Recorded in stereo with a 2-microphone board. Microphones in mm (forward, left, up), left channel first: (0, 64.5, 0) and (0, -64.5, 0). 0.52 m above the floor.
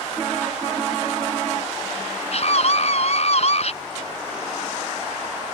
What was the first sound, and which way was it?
A scream, 55° left (ahead or behind).